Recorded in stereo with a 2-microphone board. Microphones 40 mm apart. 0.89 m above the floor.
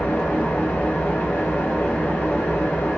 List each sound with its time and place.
0.0 s an engine running: 85° left, 2 m